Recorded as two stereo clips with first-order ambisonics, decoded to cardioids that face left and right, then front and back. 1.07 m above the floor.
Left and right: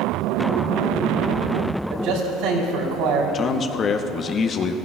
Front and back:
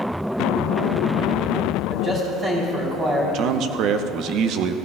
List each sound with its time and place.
1.9 s a man speaking: 110° right, 3 m
3.3 s a man speaking: 150° left, 0.7 m